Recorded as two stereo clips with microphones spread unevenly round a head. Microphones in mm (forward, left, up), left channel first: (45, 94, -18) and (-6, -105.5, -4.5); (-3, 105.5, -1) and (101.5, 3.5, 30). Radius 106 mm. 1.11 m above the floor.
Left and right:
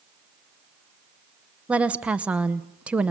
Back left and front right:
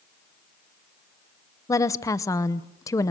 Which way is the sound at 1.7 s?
170° left.